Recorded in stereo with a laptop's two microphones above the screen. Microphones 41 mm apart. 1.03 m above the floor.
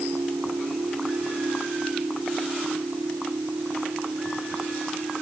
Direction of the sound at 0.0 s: 55° right (ahead or behind).